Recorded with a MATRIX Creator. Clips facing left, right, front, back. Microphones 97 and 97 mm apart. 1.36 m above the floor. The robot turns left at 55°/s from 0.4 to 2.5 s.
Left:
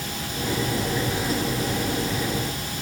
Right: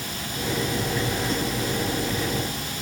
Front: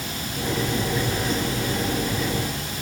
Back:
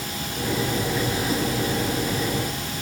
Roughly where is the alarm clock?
No alarm clock in this recording.